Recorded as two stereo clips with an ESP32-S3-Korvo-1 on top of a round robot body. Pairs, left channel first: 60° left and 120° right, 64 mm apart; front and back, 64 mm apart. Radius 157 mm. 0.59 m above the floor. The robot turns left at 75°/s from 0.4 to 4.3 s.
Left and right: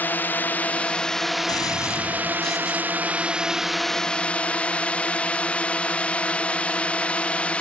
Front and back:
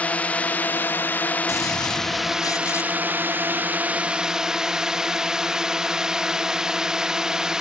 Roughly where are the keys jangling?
No keys jangling in this recording.